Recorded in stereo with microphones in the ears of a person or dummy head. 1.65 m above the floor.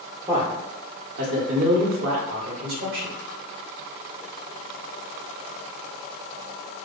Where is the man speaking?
20° right (ahead or behind), 0.7 m; by 3.1 s 75° right (ahead or behind), 1.5 m.